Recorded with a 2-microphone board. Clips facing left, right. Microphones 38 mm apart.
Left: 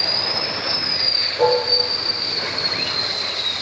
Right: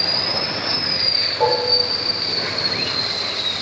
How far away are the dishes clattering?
About 5.5 m.